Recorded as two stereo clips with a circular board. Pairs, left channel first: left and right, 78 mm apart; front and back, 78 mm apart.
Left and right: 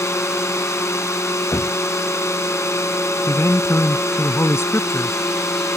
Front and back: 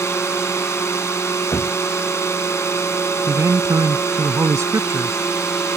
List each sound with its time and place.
0.0 s a drone: 45° left
1.5 s knocking: 50° left
3.3 s a man speaking: 140° left